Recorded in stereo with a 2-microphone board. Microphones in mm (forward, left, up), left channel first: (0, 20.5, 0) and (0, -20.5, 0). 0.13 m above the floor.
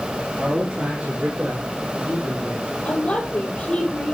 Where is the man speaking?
20° right (ahead or behind), 3 m; by 2.7 s 25° right (ahead or behind), 4.5 m.